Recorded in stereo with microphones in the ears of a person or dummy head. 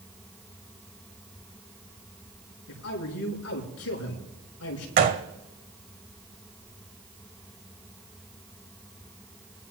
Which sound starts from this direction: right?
A gunshot, at 5.0 s.